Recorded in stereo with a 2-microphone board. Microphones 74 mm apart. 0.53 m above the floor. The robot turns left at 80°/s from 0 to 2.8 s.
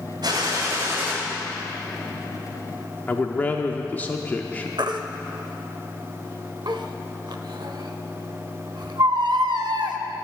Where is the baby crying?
75° right (ahead or behind), 0.6 m.